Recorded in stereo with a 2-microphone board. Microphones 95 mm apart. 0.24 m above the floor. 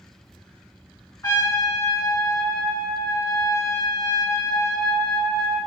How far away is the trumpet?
About 2 m.